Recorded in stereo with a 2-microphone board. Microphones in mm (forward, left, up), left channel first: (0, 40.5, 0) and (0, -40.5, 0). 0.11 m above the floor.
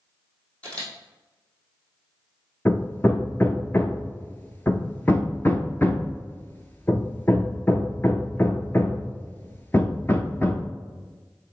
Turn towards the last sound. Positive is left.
turn(degrees=25)  # may be behind; listen again after turning